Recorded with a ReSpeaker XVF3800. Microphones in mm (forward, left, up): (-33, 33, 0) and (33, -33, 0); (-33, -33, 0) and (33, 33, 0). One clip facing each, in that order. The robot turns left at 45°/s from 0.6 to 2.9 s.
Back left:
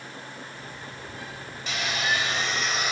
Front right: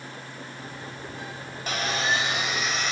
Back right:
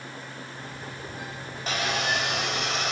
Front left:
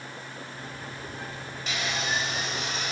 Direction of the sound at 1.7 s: 90° right.